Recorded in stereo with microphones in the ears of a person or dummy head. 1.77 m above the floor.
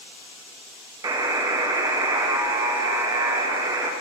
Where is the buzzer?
15° right (ahead or behind), 0.6 m.